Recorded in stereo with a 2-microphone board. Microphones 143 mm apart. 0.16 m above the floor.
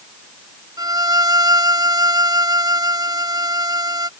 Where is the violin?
25° right (ahead or behind).